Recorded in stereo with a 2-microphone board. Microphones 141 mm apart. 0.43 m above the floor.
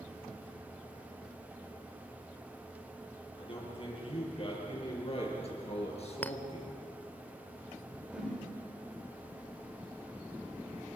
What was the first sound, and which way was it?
A man speaking, 40° left (ahead or behind).